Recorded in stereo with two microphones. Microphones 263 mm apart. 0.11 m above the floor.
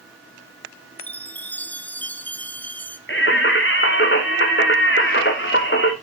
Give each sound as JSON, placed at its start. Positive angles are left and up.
{"t": 1.0, "sound": "a chime", "side_deg": 5, "distance_m": 1.0}
{"t": 3.1, "sound": "singing", "side_deg": 45, "distance_m": 1.8}